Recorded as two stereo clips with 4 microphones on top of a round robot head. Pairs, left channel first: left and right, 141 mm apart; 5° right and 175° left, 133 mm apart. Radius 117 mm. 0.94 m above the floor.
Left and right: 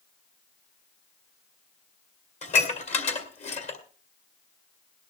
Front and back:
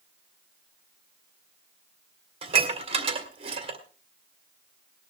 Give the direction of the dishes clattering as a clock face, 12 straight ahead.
8 o'clock.